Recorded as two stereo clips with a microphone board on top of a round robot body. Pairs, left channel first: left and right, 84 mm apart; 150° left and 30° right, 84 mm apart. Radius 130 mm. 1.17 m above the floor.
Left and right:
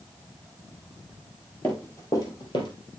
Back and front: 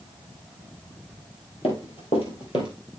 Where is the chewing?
I don't hear chewing.